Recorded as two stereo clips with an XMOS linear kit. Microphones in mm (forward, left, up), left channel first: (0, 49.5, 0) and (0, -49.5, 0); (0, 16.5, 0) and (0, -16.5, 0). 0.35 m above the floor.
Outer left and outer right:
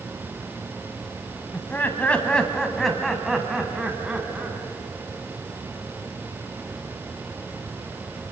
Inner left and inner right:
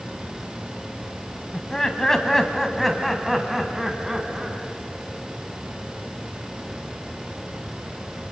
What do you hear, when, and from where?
1.5 s laughter: 20° left (ahead or behind), 2.5 m; by 4.6 s 15° right (ahead or behind), 3.5 m